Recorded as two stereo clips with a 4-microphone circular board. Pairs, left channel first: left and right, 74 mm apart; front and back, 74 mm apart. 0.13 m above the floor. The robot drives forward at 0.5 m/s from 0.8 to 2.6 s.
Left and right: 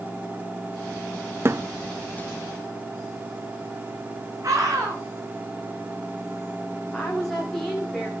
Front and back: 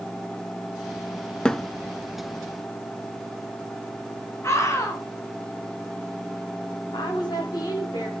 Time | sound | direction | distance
1.4 | a thud | 70° right | 0.6 m
4.4 | a scream | 45° right | 7 m
6.9 | a woman speaking | 5° left | 9 m